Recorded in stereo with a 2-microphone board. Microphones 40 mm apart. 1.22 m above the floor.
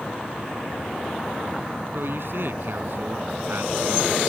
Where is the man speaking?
60° right (ahead or behind).